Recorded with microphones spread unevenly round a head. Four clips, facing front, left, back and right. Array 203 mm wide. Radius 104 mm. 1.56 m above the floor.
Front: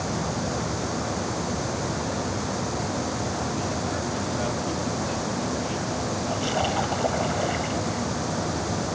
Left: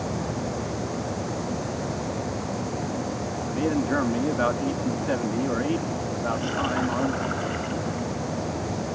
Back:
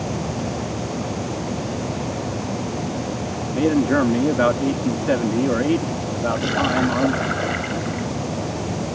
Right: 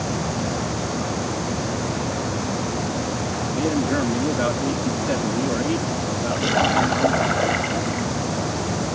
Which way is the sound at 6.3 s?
105° right.